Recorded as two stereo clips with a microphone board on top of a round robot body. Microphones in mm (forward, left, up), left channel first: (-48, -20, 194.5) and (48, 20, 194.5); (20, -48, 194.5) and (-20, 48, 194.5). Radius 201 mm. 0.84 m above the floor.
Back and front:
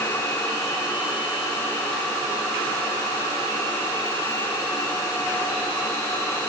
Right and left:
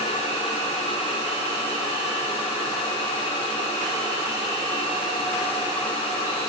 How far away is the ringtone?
I don't hear a ringtone.